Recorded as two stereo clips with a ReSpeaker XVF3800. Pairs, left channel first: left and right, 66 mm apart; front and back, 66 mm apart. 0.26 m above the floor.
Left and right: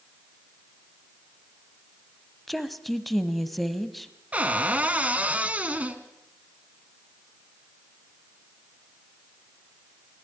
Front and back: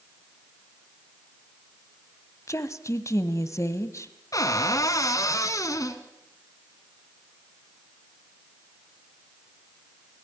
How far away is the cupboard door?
About 1.7 m.